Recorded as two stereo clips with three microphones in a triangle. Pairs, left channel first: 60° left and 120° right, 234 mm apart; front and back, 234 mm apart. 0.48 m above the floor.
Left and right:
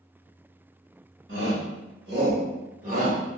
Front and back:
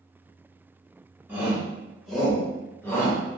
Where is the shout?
100° right, 1.9 m; by 3.2 s 70° right, 1.4 m.